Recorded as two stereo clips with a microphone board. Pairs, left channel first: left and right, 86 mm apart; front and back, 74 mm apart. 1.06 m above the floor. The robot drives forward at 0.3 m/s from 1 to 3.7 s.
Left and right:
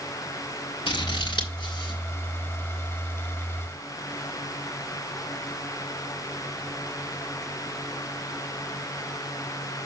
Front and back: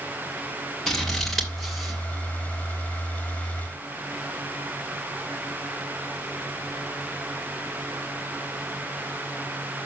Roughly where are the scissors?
Left.